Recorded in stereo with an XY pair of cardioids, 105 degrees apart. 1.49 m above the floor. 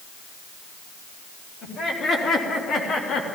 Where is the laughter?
60° left, 4 m; by 3.2 s 70° left, 2 m.